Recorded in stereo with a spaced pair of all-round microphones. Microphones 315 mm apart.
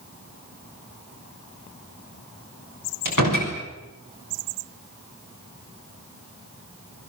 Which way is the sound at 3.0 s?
75° left (ahead or behind).